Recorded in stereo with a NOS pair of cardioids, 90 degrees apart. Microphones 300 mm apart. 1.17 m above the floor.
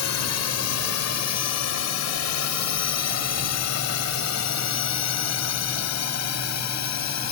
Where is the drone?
60° left.